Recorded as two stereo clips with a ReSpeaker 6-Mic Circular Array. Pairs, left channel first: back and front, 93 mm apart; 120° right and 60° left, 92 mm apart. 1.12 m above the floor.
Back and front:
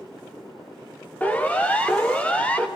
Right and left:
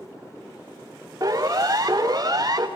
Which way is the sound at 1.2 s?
110° left.